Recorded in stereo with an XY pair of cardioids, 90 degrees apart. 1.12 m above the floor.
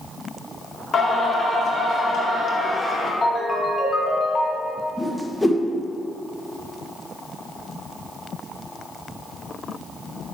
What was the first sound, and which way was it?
Singing, 65° left.